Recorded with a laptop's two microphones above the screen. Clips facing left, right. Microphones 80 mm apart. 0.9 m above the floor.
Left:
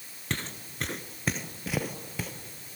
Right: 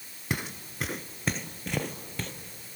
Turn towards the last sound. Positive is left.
turn(degrees=5)  # may be behind; listen again after turning